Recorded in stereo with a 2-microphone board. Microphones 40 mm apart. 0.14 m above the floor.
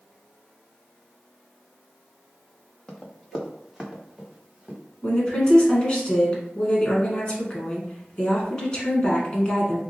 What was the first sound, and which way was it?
Running footsteps, 20° left (ahead or behind).